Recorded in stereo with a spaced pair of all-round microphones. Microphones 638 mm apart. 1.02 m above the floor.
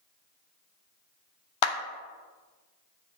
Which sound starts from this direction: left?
A clap, at 1.6 s.